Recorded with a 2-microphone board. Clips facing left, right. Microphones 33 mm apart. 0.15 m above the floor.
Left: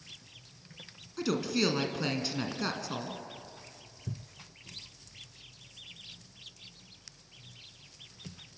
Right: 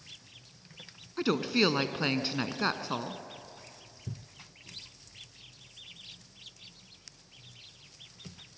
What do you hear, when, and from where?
1.2 s a woman speaking: 25° right (ahead or behind), 1.2 m